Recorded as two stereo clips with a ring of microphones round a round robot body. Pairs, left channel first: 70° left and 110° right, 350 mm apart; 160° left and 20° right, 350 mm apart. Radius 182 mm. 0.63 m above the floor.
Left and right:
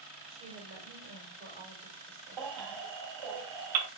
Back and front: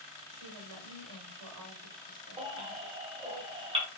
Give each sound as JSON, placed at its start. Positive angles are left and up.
{"t": 0.3, "sound": "a woman speaking", "azimuth_deg": -55, "distance_m": 2.5}
{"t": 2.4, "sound": "a baby crying", "azimuth_deg": -100, "distance_m": 2.0}